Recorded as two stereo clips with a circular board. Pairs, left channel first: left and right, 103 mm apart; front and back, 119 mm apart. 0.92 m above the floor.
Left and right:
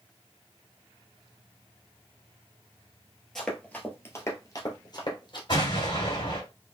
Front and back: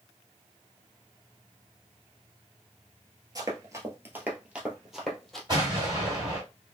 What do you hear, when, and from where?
3.4 s running footsteps: 170° left, 1.0 m; by 5.4 s 85° left, 1.3 m
5.5 s an explosion: 125° left, 1.9 m